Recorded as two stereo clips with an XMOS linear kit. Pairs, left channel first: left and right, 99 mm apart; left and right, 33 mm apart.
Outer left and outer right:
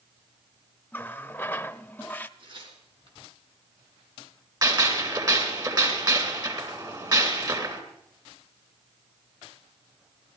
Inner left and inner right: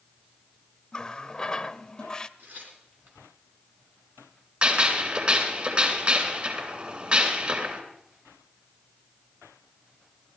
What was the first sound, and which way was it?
A running tap, 15° left (ahead or behind).